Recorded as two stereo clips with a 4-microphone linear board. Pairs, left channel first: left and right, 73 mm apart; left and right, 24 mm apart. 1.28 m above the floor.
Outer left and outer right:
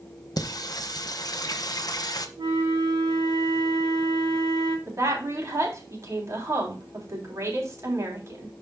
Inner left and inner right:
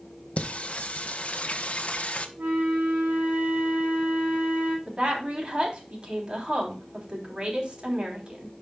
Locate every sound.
0.4 s singing: 60° left (ahead or behind), 0.8 m
2.4 s a flute: 65° right (ahead or behind), 3.5 m
4.9 s a woman speaking: 45° right (ahead or behind), 3 m